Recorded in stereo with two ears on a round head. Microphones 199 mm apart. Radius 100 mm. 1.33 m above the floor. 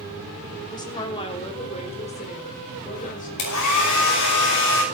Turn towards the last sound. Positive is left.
turn(degrees=85)